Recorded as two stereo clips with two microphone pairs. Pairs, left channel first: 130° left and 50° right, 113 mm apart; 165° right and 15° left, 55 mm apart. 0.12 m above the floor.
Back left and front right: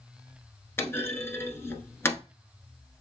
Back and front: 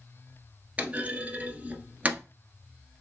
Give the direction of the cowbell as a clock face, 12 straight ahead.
No cowbell in this recording.